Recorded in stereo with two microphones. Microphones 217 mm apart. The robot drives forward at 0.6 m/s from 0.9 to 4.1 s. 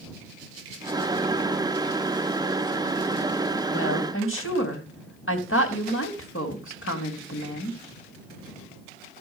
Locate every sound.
3.7 s a woman speaking: 75° left (ahead or behind), 3 m; by 7.8 s 70° left (ahead or behind), 3 m